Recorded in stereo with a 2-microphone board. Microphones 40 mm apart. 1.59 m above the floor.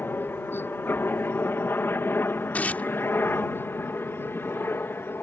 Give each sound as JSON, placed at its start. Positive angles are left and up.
{"t": 0.0, "sound": "a helicopter", "side_deg": 60}
{"t": 2.5, "sound": "tearing paper", "side_deg": 40}